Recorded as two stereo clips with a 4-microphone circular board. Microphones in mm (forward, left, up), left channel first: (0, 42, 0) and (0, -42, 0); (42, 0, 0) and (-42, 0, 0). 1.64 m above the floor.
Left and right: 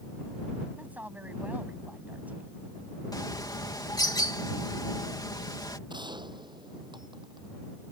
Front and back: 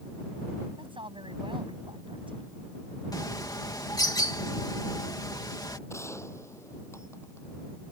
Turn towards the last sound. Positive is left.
turn(degrees=-60)